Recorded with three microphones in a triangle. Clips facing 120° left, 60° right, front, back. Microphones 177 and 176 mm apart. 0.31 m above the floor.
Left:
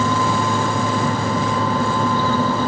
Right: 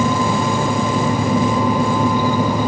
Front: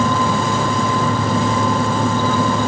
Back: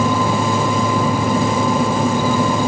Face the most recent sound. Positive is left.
No sound to turn to.